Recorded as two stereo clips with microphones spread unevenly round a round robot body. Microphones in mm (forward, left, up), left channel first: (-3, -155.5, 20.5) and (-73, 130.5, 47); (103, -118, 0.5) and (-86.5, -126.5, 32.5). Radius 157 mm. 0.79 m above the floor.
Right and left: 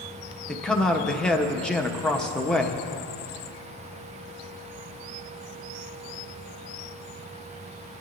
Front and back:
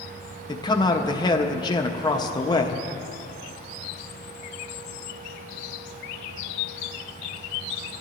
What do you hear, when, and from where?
0.5 s a man speaking: straight ahead, 0.9 m